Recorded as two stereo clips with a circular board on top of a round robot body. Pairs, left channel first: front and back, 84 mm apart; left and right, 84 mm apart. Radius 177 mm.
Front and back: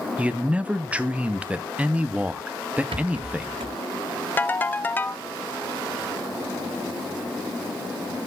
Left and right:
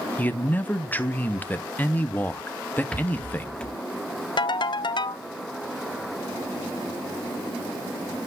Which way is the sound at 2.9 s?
170° left.